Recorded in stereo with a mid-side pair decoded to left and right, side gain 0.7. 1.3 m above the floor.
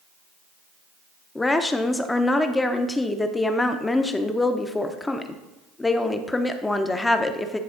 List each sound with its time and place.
1.4 s a woman speaking: 10° left, 0.7 m